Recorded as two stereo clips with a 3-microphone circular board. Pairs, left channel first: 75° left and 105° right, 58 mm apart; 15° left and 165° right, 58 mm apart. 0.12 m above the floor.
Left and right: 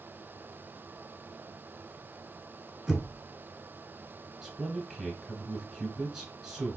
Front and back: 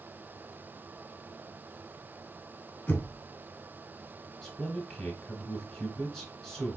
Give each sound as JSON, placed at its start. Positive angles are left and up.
{"t": 2.9, "sound": "knocking", "azimuth_deg": -20, "distance_m": 1.1}
{"t": 4.4, "sound": "a man speaking", "azimuth_deg": -40, "distance_m": 1.1}